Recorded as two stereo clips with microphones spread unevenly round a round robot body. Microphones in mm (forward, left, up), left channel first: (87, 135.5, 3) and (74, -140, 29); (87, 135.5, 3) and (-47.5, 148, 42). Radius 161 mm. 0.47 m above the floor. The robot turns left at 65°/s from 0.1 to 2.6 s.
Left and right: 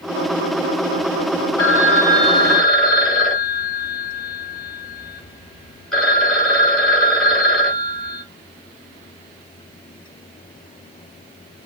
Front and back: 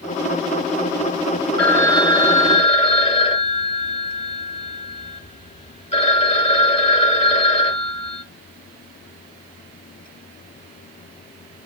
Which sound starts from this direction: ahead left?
A phone ringing, at 1.6 s.